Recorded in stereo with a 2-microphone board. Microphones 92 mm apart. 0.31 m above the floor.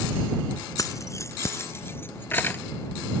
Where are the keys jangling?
40° left (ahead or behind); by 2.6 s 20° left (ahead or behind).